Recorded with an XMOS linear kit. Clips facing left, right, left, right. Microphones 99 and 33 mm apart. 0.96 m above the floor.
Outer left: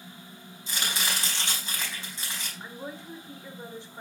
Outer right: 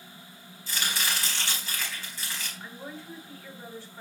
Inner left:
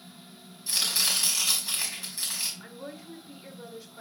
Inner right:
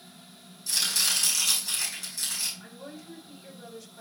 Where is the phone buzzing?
No phone buzzing in this recording.